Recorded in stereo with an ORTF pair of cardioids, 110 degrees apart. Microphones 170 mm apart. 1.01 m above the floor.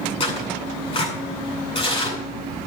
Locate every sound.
0.2 s tearing paper: 35° left, 9 m